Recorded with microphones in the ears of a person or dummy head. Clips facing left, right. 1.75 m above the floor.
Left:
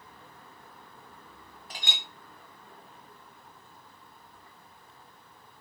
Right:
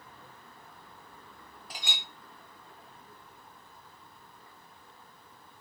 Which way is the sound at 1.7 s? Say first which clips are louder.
Left 1 dB; 5° right (ahead or behind).